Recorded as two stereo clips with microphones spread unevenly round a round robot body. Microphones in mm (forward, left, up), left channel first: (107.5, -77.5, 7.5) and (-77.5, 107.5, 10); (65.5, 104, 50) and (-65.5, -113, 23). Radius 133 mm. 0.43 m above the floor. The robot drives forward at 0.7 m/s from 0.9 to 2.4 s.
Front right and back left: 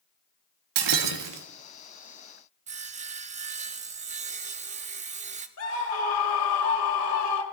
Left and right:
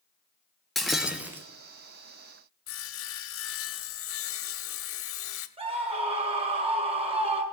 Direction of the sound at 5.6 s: 70° right.